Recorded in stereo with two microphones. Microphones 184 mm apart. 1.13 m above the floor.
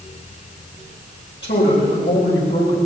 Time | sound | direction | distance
1.4 | a woman speaking | 80° left | 7 m